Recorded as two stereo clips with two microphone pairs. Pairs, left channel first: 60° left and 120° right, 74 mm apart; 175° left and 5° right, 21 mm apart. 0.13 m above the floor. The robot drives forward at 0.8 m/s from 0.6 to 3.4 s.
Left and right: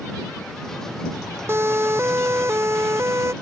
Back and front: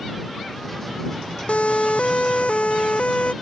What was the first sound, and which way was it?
A siren, 175° right.